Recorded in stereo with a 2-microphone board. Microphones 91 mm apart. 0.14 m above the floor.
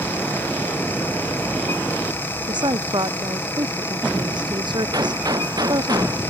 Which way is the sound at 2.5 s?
60° right (ahead or behind).